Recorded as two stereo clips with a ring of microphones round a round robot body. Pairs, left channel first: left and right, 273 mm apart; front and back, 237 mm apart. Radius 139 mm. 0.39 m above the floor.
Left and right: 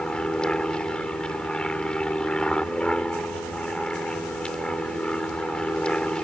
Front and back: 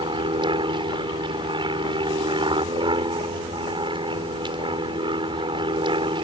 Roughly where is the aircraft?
Behind.